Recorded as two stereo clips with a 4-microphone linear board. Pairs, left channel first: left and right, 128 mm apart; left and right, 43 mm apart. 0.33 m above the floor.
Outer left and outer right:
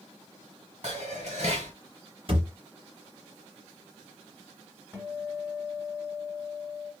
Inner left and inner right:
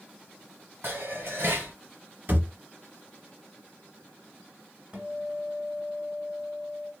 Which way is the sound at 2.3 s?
45° right (ahead or behind).